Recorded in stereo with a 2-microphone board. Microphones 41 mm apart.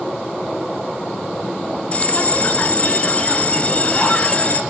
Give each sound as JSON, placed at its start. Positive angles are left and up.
{"t": 1.9, "sound": "a bell", "side_deg": 30, "distance_m": 0.7}